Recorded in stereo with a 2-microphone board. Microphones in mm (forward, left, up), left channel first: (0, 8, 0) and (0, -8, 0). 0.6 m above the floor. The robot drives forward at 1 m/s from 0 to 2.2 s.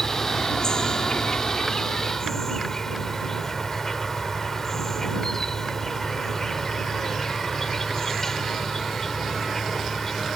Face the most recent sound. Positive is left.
turn(degrees=25)  # may be behind; listen again after turning